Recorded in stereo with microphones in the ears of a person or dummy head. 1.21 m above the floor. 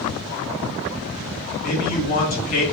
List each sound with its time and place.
1.6 s a man speaking: 40° left (ahead or behind), 1.1 m